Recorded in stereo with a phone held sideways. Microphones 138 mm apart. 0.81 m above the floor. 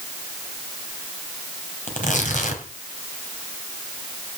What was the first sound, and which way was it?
Tearing paper, 65° left (ahead or behind).